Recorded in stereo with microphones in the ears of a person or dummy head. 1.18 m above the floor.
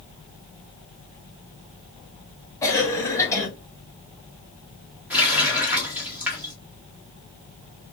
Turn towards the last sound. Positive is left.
turn(degrees=-5)  # may be behind; listen again after turning